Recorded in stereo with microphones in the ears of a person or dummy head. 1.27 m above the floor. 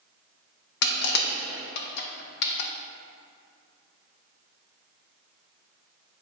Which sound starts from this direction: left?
Crushing, at 0.8 s.